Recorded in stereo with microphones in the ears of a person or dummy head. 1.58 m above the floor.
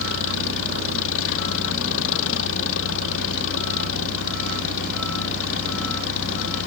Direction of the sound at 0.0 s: 80° left.